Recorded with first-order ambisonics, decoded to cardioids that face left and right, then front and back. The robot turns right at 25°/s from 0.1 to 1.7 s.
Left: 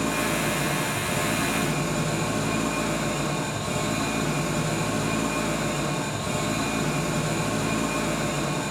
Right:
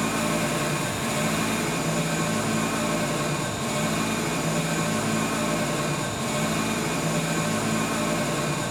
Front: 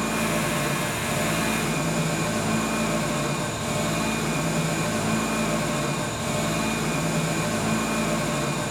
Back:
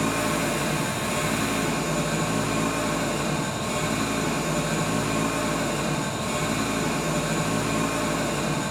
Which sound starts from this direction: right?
An engine running, at 0.0 s.